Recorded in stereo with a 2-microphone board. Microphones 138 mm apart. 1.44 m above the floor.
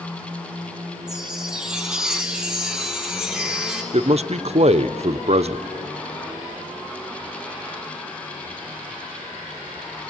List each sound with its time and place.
1.1 s a chime: 5° right (ahead or behind), 1.6 m
3.9 s a man speaking: 50° right (ahead or behind), 0.6 m